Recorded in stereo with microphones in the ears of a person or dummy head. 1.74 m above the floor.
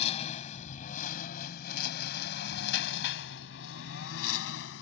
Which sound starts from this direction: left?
A lawn mower, at 0.0 s.